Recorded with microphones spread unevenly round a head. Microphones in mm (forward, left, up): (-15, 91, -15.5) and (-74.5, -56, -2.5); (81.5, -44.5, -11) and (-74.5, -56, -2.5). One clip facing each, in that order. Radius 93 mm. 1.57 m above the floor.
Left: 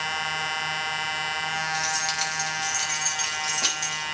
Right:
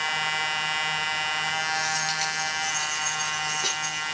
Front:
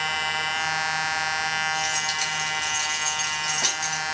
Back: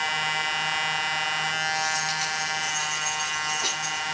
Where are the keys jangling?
100° left, 5 m; by 4.0 s 70° left, 6.5 m.